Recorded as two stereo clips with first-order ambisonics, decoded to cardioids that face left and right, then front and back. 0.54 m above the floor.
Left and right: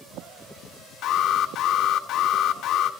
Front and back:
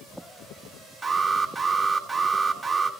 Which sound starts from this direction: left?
An alarm, at 1.0 s.